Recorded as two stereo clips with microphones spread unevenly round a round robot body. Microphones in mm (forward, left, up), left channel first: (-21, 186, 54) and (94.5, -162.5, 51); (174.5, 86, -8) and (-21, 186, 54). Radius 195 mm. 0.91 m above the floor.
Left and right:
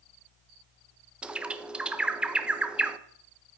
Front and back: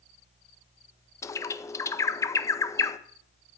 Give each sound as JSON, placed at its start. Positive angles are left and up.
{"t": 1.2, "sound": "a bird", "azimuth_deg": 15, "distance_m": 0.6}